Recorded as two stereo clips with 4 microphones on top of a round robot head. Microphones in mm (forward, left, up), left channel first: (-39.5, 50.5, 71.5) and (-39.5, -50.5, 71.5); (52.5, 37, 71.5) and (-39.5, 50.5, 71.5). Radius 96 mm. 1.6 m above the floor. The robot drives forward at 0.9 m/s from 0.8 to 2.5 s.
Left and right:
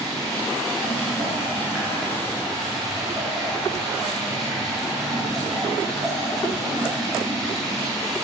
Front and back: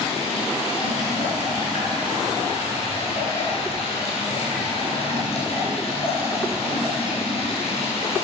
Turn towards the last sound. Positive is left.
turn(degrees=-5)